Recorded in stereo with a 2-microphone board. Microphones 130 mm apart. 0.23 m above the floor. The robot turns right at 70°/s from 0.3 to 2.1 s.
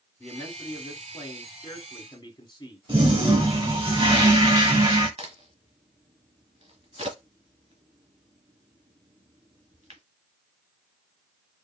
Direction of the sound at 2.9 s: 40° right (ahead or behind).